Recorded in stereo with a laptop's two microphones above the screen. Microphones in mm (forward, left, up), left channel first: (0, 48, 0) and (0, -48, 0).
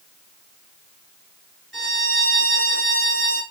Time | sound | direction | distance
1.7 | a violin | centre (ahead or behind) | 2 m